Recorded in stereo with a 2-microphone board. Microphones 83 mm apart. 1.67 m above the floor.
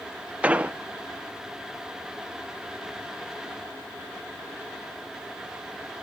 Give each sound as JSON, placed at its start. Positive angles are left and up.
{"t": 0.4, "sound": "an explosion", "side_deg": -15, "distance_m": 0.7}